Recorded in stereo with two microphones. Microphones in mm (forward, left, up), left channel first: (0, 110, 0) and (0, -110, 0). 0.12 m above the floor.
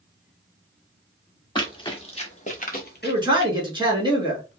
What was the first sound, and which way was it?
Running footsteps, 20° left (ahead or behind).